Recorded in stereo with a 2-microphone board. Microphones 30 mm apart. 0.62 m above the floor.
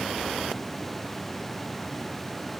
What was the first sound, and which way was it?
Only background noise.